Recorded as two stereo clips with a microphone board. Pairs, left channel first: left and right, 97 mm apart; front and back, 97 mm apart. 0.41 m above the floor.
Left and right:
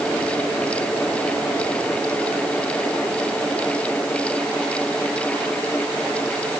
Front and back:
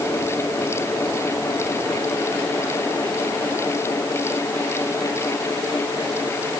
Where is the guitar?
I don't hear a guitar.